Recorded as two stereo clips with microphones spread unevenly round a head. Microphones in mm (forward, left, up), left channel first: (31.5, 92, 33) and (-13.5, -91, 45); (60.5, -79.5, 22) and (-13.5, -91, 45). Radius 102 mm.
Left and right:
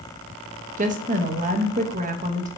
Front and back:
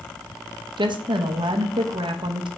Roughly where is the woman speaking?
Behind right.